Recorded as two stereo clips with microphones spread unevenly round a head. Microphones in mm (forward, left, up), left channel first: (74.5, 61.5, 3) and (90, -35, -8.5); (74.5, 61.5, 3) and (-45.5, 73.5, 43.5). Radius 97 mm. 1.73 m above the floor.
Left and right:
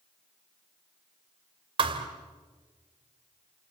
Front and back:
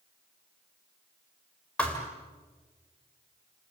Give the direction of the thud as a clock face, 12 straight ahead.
4 o'clock.